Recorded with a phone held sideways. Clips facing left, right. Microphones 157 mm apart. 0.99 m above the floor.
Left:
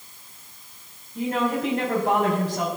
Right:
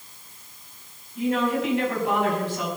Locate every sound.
1.1 s a woman speaking: 40° left (ahead or behind), 6 m